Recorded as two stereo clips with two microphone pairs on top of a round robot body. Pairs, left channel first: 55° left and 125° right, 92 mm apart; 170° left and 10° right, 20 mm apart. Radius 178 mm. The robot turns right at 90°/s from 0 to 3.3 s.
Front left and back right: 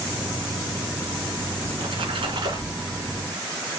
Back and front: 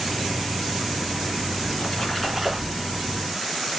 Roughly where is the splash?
Behind.